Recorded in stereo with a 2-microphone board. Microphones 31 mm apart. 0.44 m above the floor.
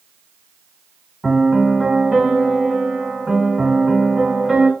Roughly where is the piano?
Centre.